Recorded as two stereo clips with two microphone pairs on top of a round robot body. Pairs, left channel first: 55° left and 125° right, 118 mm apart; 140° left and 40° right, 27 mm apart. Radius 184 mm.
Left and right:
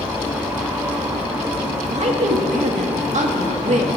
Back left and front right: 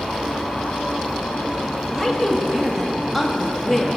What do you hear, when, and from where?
1.9 s a woman speaking: 125° right, 1.7 m